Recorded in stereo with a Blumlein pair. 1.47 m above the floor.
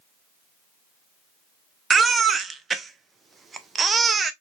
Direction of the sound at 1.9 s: 15° right.